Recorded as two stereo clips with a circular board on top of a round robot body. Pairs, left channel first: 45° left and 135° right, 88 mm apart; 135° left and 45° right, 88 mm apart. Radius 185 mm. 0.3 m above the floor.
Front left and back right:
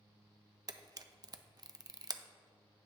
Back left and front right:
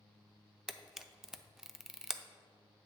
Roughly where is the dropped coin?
No dropped coin in this recording.